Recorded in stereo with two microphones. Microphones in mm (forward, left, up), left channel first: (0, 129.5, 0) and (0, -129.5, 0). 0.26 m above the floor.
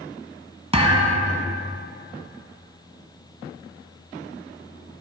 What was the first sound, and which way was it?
A thud, 20° right (ahead or behind).